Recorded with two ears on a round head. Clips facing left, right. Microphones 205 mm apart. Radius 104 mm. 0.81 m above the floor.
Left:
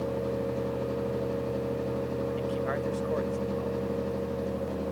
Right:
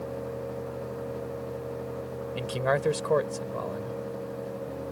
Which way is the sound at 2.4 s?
85° right.